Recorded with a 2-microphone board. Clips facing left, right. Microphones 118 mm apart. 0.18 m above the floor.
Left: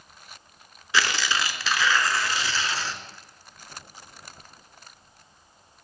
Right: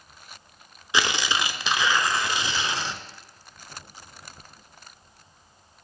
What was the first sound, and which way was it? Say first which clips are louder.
Tearing paper: even; 20° right (ahead or behind).